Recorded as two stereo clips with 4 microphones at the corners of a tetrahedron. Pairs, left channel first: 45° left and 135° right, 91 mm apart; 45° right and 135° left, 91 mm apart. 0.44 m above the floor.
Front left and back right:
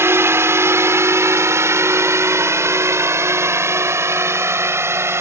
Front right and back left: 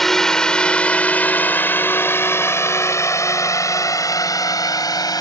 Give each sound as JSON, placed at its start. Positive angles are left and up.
{"t": 0.0, "sound": "a drone", "azimuth_deg": -125}